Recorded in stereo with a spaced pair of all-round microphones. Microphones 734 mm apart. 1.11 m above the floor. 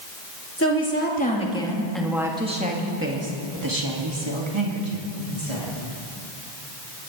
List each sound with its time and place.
0.6 s a woman speaking: 20° left (ahead or behind), 2.5 m; by 5.7 s 55° right (ahead or behind), 2.5 m